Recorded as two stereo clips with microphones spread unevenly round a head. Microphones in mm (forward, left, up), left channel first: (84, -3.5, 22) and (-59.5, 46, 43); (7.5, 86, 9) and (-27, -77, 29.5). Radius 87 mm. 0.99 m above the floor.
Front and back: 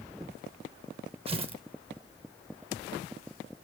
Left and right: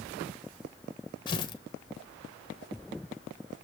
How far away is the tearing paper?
About 1.0 m.